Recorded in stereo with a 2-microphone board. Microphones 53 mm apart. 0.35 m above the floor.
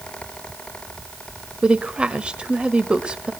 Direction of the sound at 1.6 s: 15° right (ahead or behind).